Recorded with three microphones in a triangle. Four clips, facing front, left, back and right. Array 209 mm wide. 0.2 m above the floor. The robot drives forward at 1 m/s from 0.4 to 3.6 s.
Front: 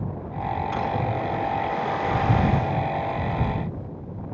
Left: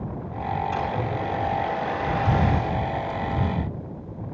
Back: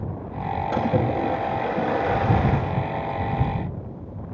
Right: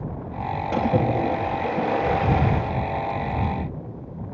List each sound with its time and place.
0.7 s a splash: 120° right, 7.5 m; by 2.7 s 135° right, 8.5 m